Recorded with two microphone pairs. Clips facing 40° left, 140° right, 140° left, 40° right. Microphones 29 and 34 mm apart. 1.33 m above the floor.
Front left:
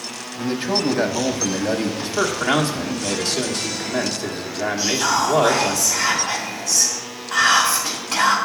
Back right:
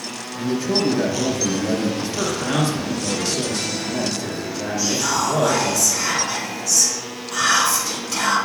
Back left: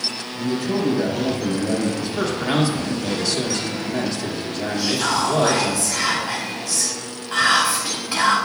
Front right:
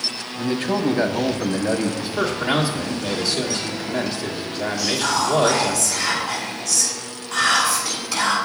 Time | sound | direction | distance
0.4 | a man speaking | 5° right | 1.0 m
2.0 | a man speaking | 40° left | 1.6 m
4.8 | whispering | 80° left | 4 m